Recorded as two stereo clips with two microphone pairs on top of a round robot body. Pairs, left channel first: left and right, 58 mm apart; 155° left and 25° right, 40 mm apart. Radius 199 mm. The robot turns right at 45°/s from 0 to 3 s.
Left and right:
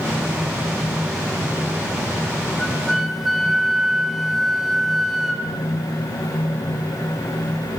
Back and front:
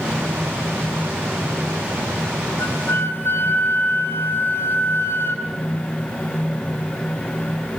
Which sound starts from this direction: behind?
A flute, at 2.6 s.